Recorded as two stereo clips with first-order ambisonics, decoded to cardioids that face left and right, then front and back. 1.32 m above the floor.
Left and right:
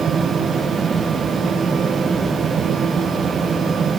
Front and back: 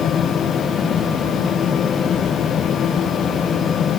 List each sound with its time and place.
Only background noise.